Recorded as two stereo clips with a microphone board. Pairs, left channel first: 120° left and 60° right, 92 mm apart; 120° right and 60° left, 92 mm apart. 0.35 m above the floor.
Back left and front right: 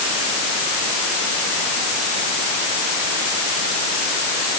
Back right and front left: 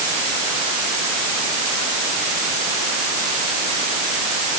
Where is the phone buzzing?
I don't hear a phone buzzing.